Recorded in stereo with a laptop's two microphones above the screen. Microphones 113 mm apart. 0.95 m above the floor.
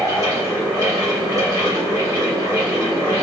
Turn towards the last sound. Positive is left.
turn(degrees=-30)  # may be behind; listen again after turning